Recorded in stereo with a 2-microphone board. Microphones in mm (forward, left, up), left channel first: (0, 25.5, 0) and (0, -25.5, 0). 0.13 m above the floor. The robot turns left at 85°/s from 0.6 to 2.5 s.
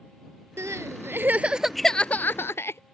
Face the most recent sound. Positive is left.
turn(degrees=115)